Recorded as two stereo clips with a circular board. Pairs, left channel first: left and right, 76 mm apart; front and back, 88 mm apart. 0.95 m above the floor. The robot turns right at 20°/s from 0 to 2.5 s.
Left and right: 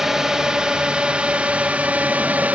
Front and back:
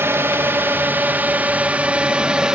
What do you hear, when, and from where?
0.0 s a drone: 170° right; by 2.5 s 120° right